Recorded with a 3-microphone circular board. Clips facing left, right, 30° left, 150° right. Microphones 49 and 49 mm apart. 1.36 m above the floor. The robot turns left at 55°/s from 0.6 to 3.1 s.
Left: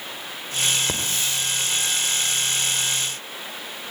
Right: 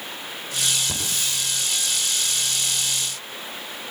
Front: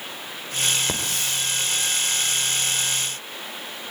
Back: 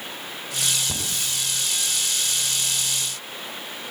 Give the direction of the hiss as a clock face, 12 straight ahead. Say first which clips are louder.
Left 2 dB, front 3 dB; 10 o'clock.